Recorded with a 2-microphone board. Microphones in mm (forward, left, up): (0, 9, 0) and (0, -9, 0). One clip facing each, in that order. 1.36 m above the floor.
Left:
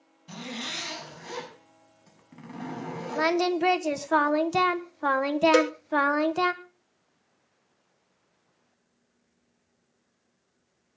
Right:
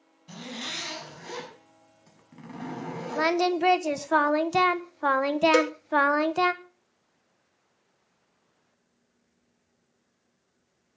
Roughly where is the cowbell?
Centre.